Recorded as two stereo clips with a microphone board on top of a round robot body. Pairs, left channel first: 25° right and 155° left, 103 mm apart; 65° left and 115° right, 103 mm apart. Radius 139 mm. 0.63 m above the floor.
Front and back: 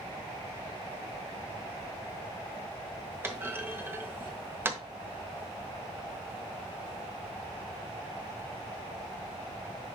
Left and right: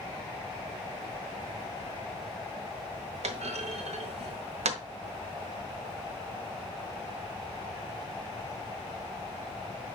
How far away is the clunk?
About 1.0 m.